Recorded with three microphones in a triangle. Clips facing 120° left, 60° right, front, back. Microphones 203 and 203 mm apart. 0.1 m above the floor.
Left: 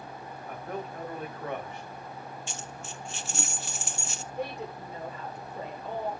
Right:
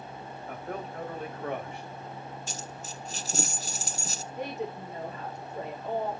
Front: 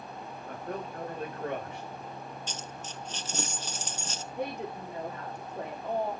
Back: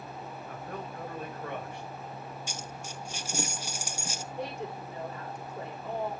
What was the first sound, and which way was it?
A man speaking, straight ahead.